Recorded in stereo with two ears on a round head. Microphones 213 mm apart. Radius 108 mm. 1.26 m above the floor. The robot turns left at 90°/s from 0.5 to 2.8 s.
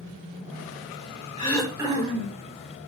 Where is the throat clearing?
20° left, 4.5 m; by 2.4 s 75° right, 4.5 m.